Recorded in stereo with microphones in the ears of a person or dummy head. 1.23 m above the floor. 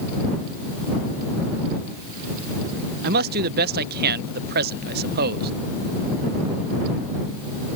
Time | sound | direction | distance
3.0 | a man speaking | 55° right (ahead or behind) | ?